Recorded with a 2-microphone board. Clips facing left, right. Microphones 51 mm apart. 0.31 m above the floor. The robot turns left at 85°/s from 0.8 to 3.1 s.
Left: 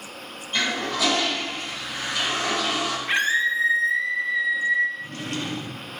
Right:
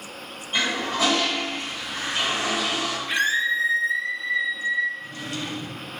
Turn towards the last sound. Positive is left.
turn(degrees=50)  # may be behind; listen again after turning